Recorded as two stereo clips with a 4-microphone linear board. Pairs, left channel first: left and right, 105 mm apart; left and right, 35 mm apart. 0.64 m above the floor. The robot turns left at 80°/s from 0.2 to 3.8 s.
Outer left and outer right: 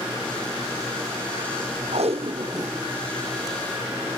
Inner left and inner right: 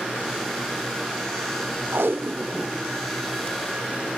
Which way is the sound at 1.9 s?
85° right.